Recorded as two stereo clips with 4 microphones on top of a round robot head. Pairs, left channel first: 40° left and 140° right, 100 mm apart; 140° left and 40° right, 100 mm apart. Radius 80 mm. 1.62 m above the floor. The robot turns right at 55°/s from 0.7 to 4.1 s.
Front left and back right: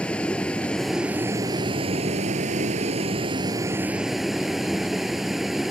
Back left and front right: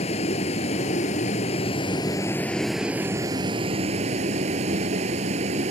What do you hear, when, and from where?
0.0 s a vehicle: 120° left; by 5.7 s 55° right